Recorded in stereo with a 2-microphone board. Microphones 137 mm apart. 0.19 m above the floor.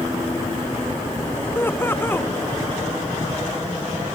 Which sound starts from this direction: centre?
Laughter, at 1.6 s.